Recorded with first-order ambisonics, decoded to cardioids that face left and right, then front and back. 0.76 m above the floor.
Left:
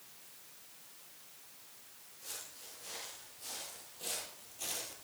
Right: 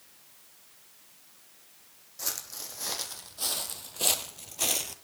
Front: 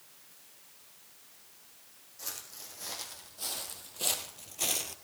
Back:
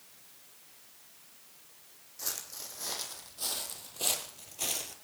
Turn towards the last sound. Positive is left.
turn(degrees=-65)